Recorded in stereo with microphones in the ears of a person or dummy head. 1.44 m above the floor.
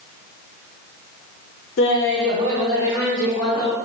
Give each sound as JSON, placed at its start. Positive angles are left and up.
{"t": 1.8, "sound": "laughter", "side_deg": 55, "distance_m": 0.6}